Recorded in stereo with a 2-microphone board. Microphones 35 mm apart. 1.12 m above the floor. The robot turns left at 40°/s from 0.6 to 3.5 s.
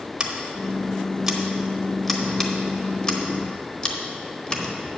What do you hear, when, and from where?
0.2 s scissors: 25° right (ahead or behind), 0.9 m; by 5.0 s 30° left (ahead or behind), 0.9 m